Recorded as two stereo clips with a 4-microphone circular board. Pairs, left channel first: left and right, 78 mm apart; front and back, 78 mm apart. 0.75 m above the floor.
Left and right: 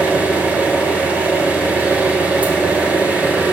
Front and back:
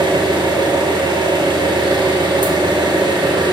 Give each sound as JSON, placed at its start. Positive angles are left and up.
{"t": 0.0, "sound": "an engine running", "azimuth_deg": -160, "distance_m": 1.4}